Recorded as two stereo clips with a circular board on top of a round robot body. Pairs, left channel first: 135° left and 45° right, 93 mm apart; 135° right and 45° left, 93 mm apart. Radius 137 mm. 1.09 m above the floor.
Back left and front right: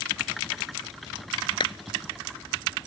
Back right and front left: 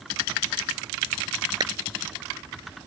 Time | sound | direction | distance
1.6 | a clap | 95° left | ?